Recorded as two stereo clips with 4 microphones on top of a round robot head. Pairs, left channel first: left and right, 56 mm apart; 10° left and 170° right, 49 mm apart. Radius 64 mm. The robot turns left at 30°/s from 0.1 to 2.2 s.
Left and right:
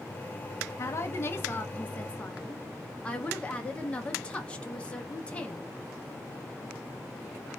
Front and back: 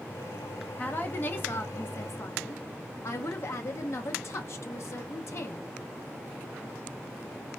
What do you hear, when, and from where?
0.8 s a woman speaking: 65° left, 0.7 m; by 5.7 s 20° left, 0.7 m